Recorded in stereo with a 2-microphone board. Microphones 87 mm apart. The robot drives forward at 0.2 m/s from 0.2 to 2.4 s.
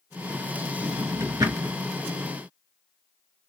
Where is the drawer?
40° right (ahead or behind), 3 m.